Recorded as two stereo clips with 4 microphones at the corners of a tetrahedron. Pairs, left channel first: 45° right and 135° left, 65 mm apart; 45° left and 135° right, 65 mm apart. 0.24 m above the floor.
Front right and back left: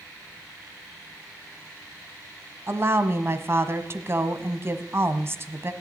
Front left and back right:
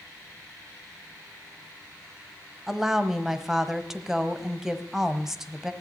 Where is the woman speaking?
145° left, 1.2 m.